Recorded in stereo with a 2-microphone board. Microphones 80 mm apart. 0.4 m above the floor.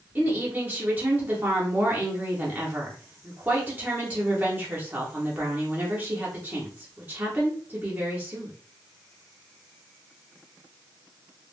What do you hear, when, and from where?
0.1 s a woman speaking: 20° right (ahead or behind), 0.8 m